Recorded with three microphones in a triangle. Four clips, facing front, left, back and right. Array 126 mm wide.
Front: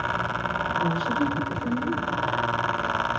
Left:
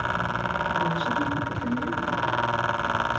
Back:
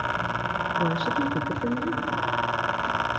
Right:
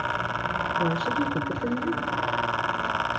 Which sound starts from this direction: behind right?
A woman speaking, at 0.8 s.